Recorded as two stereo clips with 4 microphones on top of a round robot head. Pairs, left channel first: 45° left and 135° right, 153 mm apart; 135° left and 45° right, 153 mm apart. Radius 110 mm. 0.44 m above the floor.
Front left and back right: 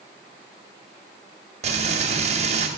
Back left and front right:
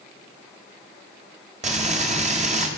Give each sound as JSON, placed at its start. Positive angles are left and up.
{"t": 1.6, "sound": "frying", "azimuth_deg": -90, "distance_m": 2.0}